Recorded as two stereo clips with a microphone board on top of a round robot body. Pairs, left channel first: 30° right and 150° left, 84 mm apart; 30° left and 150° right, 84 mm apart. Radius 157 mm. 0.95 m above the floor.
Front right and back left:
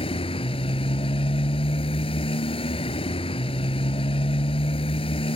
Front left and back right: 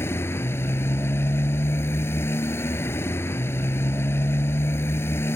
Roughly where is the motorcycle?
Ahead right.